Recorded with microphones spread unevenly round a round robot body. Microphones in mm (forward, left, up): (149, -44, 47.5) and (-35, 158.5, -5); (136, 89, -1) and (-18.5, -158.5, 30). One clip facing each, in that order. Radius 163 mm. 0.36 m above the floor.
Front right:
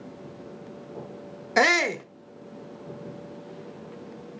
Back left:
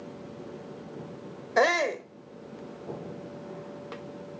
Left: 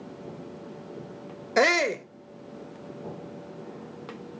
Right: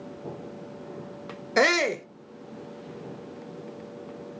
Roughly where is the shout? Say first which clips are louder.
Front right 1 dB, even; ahead right.